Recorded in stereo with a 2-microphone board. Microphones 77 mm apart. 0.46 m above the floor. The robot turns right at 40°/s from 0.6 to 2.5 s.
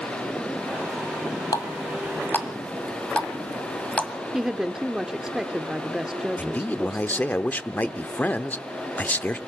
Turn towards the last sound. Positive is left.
turn(degrees=20)  # may be behind; listen again after turning